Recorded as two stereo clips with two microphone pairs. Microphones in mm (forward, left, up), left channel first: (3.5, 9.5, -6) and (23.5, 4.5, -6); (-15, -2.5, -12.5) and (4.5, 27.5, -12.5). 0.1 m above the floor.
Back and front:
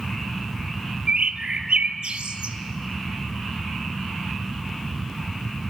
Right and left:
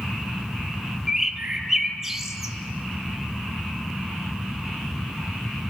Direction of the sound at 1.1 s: 20° right.